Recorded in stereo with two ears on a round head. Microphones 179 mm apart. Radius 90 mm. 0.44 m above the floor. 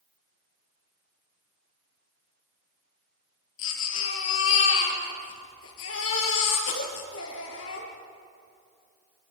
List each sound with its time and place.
3.6 s a baby crying: 70° left (ahead or behind), 5.5 m